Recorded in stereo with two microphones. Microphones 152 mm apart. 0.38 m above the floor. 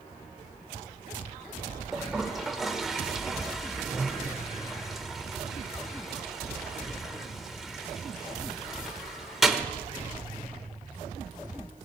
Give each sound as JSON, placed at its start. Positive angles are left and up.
{"t": 1.9, "sound": "a toilet flushing", "side_deg": 0, "distance_m": 1.0}